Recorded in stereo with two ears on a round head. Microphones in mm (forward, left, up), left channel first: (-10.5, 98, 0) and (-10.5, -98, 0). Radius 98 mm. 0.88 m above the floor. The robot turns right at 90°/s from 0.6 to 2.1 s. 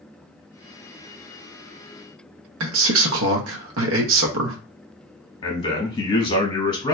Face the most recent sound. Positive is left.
turn(degrees=25)  # may be behind; listen again after turning